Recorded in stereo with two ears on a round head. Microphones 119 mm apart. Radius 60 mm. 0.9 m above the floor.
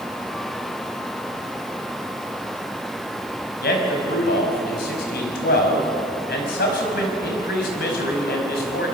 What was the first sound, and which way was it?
A man speaking, 80° left.